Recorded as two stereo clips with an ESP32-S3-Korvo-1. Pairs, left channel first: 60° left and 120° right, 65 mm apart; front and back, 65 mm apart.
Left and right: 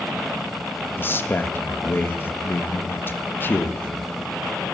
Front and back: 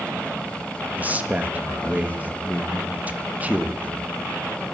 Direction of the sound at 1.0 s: 115° left.